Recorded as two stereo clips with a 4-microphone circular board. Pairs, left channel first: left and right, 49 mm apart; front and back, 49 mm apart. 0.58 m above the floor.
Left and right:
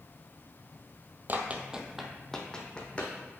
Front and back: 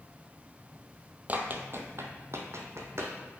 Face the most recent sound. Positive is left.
turn(degrees=155)